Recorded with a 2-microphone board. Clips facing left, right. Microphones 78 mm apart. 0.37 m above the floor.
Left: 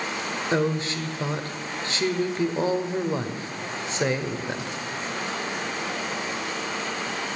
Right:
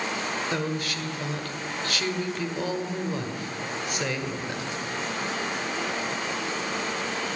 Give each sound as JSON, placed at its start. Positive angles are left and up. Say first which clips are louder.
{"t": 0.5, "sound": "a woman speaking", "louder": "left 5 dB", "side_deg": 30, "distance_m": 1.2}